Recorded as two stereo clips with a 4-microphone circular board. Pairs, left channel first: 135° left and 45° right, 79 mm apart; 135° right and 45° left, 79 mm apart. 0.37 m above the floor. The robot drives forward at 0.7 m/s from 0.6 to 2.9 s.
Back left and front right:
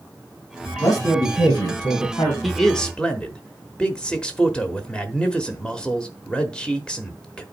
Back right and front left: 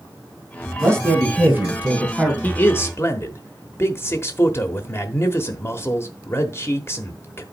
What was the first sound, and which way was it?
A man speaking, 100° left.